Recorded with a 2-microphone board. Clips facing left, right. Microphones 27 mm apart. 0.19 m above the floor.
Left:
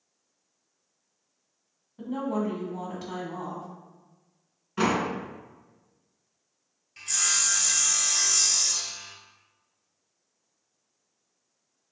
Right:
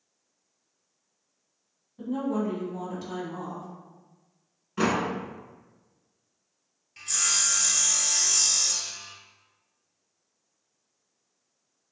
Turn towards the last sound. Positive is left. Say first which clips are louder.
# even
turn(degrees=0)  # may be behind; listen again after turning